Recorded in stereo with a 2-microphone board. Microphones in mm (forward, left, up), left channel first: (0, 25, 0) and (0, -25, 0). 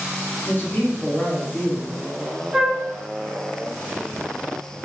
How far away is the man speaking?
About 0.9 m.